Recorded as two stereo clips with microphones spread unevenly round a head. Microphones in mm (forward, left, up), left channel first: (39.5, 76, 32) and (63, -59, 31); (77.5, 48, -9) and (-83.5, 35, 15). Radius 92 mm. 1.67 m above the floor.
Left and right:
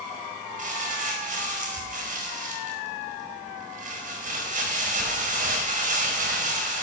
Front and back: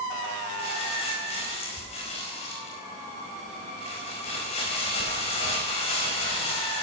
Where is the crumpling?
55° right, 4.5 m.